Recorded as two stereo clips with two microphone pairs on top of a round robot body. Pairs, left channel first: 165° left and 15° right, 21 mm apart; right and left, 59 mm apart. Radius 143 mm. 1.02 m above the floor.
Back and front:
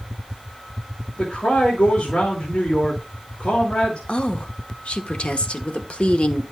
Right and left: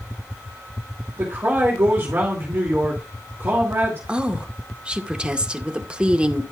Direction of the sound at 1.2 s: 145° left.